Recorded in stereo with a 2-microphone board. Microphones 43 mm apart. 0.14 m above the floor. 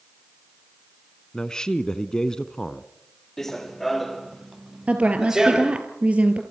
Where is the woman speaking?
30° right (ahead or behind), 2.5 m.